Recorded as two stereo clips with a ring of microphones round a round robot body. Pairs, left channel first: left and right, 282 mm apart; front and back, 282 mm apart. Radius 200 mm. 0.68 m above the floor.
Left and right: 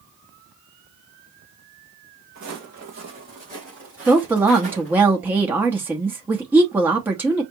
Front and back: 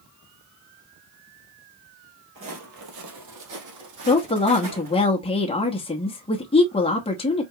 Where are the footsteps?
135° right, 1.0 m; by 5.1 s 175° left, 3 m.